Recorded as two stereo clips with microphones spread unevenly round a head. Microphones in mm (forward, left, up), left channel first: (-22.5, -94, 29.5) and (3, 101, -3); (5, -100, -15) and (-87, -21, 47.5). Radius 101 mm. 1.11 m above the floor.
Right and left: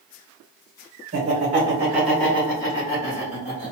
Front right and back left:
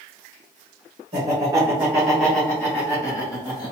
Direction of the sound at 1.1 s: 60° left.